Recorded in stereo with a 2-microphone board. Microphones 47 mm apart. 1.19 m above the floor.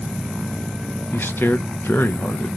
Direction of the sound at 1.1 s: 45° left (ahead or behind).